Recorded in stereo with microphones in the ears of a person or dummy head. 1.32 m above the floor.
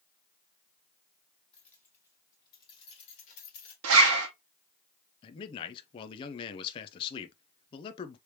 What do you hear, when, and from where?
1.5 s keys jangling: centre (ahead or behind), 2.0 m; by 3.7 s 50° left (ahead or behind), 1.6 m
3.8 s a zipper: 80° right, 1.0 m
5.2 s a man speaking: 25° left (ahead or behind), 0.5 m